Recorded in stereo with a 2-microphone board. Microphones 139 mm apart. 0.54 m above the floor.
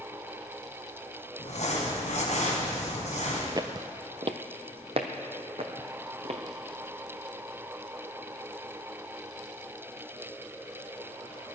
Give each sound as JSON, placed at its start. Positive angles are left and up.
{"t": 1.4, "sound": "crumpling", "side_deg": 60, "distance_m": 3.5}
{"t": 3.6, "sound": "footsteps", "side_deg": -30, "distance_m": 0.5}